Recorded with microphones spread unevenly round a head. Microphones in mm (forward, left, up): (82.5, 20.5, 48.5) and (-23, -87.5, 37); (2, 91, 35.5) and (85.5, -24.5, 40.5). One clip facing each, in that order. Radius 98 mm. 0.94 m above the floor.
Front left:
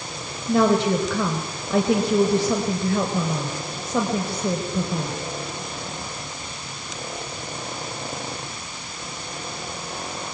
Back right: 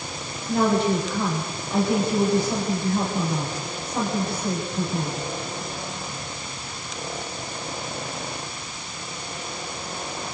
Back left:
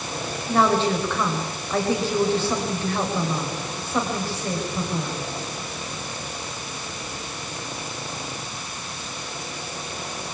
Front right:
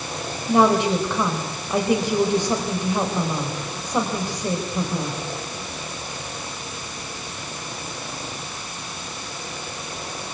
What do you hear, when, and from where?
0.5 s a woman speaking: 20° left, 4.5 m